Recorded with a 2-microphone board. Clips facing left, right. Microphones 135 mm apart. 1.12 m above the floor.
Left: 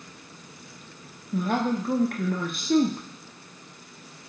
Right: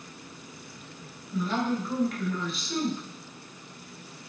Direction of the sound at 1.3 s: 55° left (ahead or behind).